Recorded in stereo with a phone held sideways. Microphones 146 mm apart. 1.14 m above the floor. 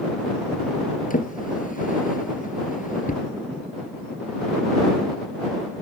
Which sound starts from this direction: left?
A drawer, at 1.1 s.